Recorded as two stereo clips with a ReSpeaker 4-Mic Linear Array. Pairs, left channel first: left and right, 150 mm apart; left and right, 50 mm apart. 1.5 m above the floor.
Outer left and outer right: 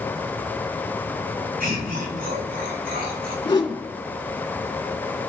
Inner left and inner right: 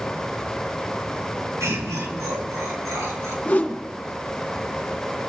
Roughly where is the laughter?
Right.